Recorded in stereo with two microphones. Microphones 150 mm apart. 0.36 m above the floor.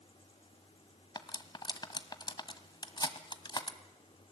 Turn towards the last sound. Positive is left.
turn(degrees=30)  # may be behind; listen again after turning